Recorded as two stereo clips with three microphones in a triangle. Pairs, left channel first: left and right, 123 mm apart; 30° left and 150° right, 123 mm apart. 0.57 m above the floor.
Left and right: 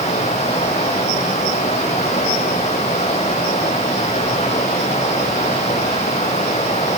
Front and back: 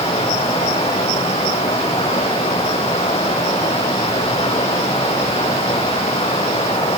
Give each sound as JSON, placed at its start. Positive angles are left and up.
{"t": 0.0, "sound": "running water", "azimuth_deg": 65, "distance_m": 5.5}